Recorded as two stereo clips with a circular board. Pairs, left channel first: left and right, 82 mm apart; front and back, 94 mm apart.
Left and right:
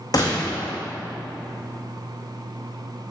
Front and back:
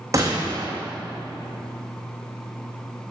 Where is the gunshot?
125° left, 2.5 m.